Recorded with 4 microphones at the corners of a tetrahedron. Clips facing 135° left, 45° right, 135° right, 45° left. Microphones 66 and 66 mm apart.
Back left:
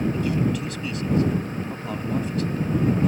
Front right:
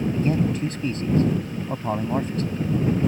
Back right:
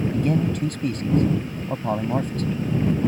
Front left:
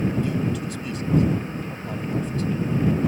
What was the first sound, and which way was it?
A man speaking, 100° right.